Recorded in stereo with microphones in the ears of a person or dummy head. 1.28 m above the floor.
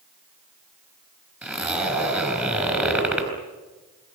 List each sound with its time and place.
1.4 s a zipper: 10° right (ahead or behind), 6.5 m